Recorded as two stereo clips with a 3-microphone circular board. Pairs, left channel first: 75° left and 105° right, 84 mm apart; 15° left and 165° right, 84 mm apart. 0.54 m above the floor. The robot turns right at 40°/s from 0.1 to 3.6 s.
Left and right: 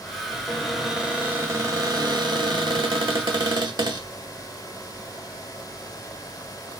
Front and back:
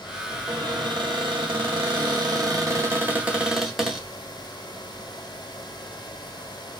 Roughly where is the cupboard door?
Behind left.